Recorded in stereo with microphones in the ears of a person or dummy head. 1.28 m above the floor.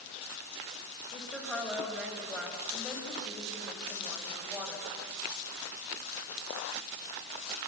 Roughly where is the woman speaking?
Centre.